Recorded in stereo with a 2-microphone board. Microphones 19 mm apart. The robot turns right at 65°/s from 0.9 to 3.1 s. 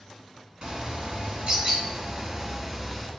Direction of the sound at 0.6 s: 125° right.